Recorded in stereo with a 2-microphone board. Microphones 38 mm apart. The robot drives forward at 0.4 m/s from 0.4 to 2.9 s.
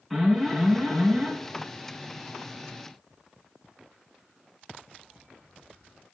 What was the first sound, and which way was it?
An alarm, 5° left (ahead or behind).